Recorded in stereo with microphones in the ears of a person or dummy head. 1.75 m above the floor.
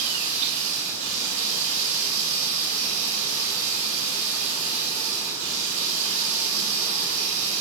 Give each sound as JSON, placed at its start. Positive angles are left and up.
{"t": 0.0, "sound": "running water", "side_deg": -65, "distance_m": 4.0}